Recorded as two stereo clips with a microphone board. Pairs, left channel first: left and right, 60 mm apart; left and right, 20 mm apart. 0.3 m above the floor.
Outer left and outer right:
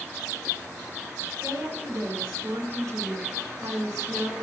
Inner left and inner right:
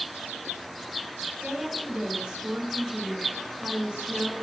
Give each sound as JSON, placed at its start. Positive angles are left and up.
{"t": 1.4, "sound": "a woman speaking", "side_deg": -60, "distance_m": 3.0}